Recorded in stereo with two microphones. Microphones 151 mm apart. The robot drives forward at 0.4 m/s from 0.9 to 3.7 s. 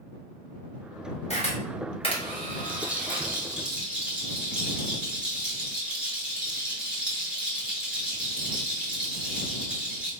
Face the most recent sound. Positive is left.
turn(degrees=-5)  # may be behind; listen again after turning